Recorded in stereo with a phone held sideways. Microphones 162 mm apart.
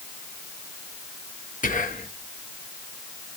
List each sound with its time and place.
1.6 s whispering: 55° left (ahead or behind), 0.9 m